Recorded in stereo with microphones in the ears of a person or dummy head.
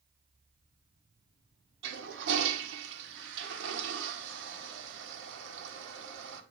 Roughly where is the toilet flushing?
Right.